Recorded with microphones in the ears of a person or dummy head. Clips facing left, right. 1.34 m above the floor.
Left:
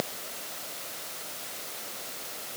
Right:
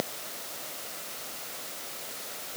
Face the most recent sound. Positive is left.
No sound to turn to.